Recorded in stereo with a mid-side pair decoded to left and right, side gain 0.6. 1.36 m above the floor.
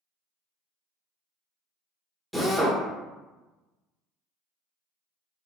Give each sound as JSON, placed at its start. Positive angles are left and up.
{"t": 2.3, "sound": "a drill", "azimuth_deg": 0, "distance_m": 0.9}